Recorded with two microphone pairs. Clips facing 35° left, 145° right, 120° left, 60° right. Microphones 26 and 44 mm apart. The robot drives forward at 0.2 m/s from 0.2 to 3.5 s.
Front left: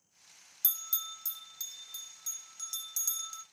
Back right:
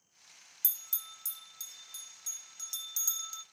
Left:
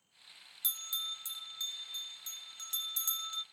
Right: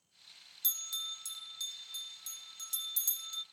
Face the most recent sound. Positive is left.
turn(degrees=150)